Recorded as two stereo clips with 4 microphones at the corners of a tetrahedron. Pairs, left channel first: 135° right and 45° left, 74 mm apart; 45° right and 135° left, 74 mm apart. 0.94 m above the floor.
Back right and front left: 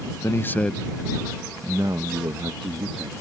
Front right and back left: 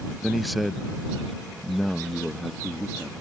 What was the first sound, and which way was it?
A man speaking, 135° right.